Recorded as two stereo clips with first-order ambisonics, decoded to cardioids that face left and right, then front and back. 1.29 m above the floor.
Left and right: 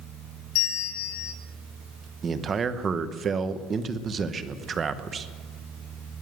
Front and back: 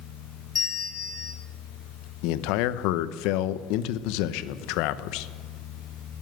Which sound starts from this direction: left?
A bell, at 0.6 s.